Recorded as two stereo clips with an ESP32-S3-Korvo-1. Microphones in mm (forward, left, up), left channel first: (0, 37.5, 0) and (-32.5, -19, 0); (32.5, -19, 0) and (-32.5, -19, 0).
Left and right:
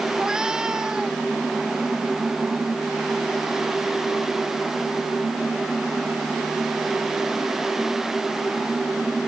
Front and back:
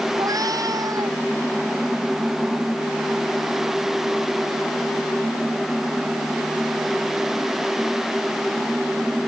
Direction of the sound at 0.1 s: 160° left.